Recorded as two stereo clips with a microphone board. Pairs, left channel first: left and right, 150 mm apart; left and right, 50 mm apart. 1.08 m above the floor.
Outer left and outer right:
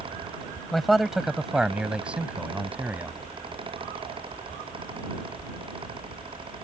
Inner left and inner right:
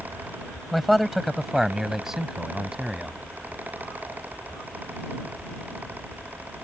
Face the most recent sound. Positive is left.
turn(degrees=-10)  # may be behind; listen again after turning